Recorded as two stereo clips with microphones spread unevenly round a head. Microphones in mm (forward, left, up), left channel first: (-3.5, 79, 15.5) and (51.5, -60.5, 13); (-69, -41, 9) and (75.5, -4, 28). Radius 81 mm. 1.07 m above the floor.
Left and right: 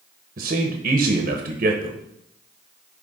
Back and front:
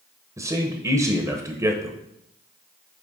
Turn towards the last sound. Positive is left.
turn(degrees=-60)